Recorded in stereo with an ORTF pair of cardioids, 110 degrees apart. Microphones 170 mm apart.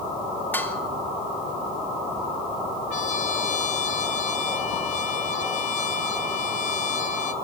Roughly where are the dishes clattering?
Ahead.